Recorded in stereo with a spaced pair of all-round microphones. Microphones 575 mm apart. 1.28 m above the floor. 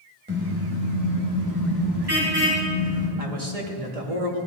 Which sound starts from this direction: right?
A man speaking, at 3.2 s.